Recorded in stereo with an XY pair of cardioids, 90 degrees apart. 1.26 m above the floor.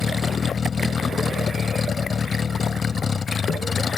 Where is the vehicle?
40° left.